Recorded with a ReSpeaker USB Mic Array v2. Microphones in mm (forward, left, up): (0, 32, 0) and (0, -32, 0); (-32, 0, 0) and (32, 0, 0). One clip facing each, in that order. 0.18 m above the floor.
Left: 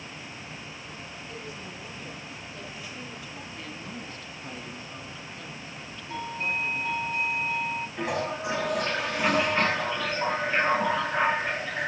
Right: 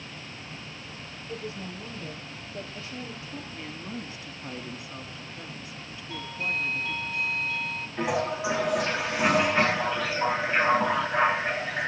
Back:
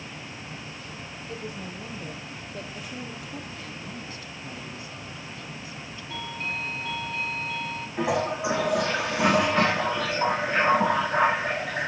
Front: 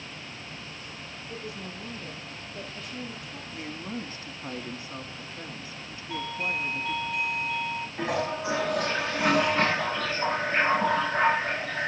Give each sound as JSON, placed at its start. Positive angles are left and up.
{"t": 1.3, "sound": "a woman speaking", "azimuth_deg": -150, "distance_m": 5.5}
{"t": 3.5, "sound": "a woman speaking", "azimuth_deg": -20, "distance_m": 1.2}
{"t": 6.1, "sound": "a doorbell", "azimuth_deg": 75, "distance_m": 1.6}
{"t": 8.0, "sound": "a toilet flushing", "azimuth_deg": -175, "distance_m": 5.5}